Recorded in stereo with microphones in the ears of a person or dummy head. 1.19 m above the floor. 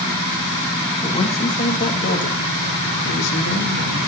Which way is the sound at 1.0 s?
25° left (ahead or behind).